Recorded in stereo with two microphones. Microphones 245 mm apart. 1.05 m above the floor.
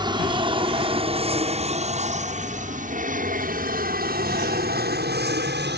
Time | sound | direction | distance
0.0 | an aircraft | 20° right (ahead or behind) | ?